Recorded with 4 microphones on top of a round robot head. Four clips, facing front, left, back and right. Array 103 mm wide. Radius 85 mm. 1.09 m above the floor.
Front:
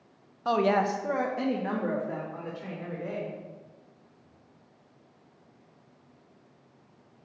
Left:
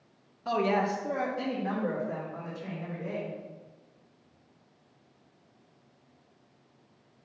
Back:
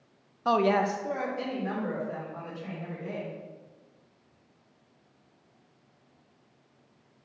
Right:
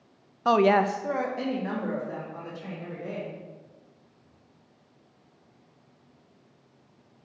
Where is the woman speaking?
100° right, 0.8 m; by 3.3 s 15° right, 4.5 m.